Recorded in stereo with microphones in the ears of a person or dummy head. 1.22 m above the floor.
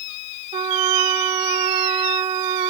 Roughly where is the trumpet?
Right.